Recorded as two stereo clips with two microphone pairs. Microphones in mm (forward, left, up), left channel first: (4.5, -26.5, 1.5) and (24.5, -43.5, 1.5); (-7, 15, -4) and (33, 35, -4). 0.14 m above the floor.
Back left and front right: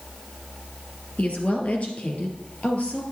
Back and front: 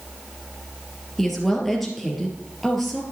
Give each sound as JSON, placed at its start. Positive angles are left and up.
{"t": 1.2, "sound": "a woman speaking", "azimuth_deg": 120, "distance_m": 3.5}